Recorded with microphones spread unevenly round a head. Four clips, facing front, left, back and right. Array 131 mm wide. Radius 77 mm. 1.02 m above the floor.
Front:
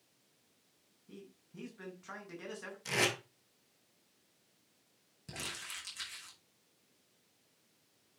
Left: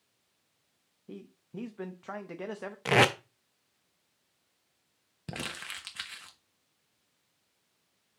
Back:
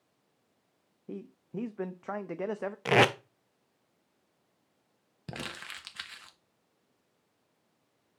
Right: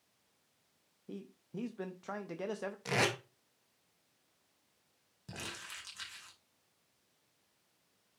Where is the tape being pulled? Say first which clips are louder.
Left 9 dB, back 11 dB; 130° left, 0.5 m.